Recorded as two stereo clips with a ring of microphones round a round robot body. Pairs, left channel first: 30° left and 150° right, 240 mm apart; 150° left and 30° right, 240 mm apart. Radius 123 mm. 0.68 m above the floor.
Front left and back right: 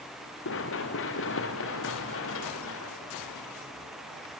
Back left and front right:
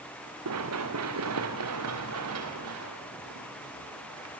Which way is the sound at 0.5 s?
5° right.